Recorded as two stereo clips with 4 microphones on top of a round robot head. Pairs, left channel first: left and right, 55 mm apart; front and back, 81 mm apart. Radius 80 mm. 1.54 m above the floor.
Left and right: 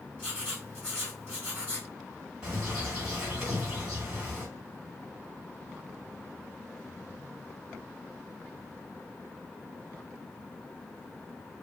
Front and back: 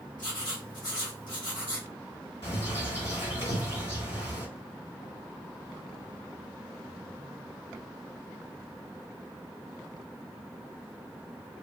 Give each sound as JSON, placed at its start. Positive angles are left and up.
{"t": 0.2, "sound": "writing", "azimuth_deg": 20, "distance_m": 1.8}
{"t": 2.4, "sound": "a bird", "azimuth_deg": -15, "distance_m": 2.5}